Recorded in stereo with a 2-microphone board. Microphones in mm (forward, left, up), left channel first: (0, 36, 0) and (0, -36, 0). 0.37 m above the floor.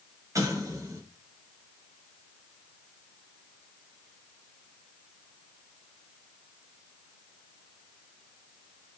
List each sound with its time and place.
0.3 s an explosion: 45° right (ahead or behind), 0.9 m